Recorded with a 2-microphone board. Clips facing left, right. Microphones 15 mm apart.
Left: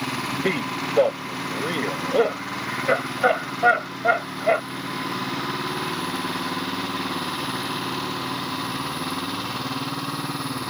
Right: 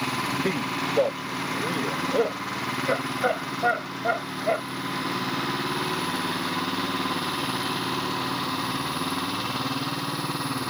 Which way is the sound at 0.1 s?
35° left (ahead or behind).